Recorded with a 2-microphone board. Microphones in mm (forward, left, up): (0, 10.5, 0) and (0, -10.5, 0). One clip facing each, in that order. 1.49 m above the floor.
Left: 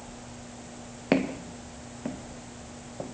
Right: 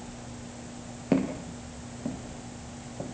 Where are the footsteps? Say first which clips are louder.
Left 1 dB; 45° left (ahead or behind), 2.0 m; by 3.1 s 25° left (ahead or behind), 2.5 m.